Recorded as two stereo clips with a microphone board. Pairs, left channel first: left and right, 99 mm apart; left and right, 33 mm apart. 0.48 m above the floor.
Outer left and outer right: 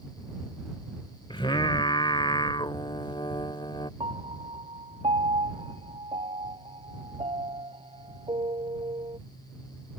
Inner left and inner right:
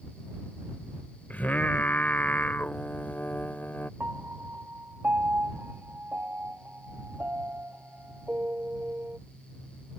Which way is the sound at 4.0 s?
70° right (ahead or behind).